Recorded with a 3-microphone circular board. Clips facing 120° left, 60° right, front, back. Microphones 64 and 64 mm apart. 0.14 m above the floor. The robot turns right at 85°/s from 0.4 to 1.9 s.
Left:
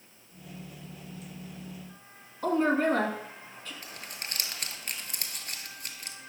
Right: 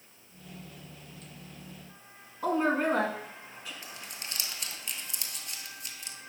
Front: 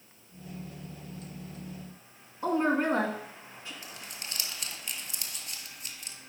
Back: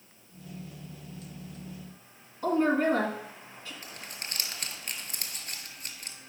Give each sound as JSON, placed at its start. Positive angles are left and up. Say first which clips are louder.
{"t": 2.4, "sound": "a woman speaking", "louder": "left 2 dB, back 2 dB", "azimuth_deg": 5, "distance_m": 1.2}
{"t": 3.8, "sound": "crumpling", "louder": "left 1 dB, back 1 dB", "azimuth_deg": 150, "distance_m": 0.7}